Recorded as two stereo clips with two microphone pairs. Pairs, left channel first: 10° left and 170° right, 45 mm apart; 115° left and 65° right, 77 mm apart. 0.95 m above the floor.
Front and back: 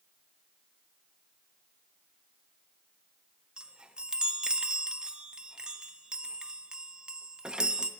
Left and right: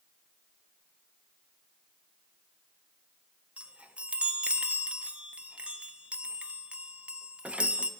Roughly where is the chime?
Behind right.